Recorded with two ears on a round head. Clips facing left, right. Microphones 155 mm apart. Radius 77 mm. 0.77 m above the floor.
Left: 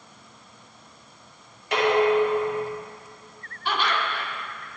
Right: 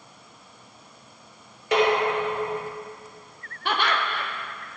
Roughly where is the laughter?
Right.